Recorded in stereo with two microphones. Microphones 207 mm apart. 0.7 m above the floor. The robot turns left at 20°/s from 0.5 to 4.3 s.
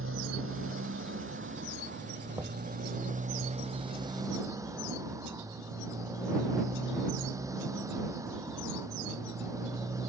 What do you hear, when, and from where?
0.0 s a motorcycle: 90° right; by 10.1 s 165° right
2.4 s knocking: 15° right (ahead or behind); by 2.6 s 20° right (ahead or behind)